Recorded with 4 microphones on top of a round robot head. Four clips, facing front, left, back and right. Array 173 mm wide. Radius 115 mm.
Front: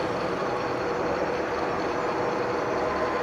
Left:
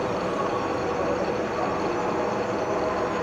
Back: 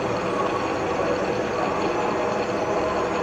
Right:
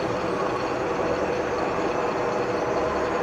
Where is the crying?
I don't hear crying.